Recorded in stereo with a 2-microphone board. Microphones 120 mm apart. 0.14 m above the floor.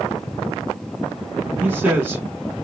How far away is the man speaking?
About 1.0 m.